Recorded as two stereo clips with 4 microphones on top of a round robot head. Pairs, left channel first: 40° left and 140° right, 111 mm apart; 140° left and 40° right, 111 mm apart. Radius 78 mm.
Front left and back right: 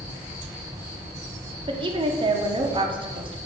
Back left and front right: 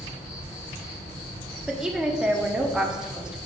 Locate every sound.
0.0 s an insect: 150° left, 3 m
1.7 s a woman speaking: 120° right, 0.9 m